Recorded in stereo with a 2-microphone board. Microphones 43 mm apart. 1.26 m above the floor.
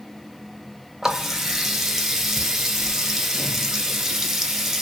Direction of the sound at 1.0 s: 10° right (ahead or behind).